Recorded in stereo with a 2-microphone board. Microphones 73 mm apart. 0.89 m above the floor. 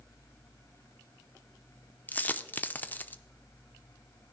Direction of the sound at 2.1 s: 25° left (ahead or behind).